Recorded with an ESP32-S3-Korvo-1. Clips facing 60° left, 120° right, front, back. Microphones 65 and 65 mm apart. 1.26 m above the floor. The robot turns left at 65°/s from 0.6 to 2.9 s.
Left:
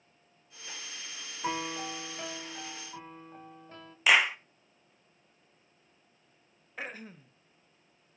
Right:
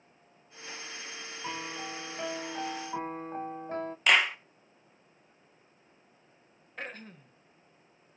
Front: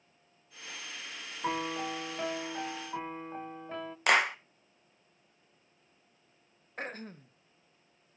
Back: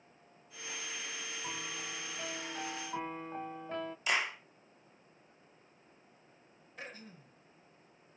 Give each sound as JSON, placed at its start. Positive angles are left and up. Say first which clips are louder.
{"t": 1.4, "sound": "a piano", "louder": "left 5 dB, front 13 dB", "azimuth_deg": 10, "distance_m": 0.6}
{"t": 4.1, "sound": "a clap", "louder": "left 1 dB, front 8 dB", "azimuth_deg": -25, "distance_m": 1.1}
{"t": 6.8, "sound": "throat clearing", "louder": "left 1 dB, front 8 dB", "azimuth_deg": -20, "distance_m": 0.8}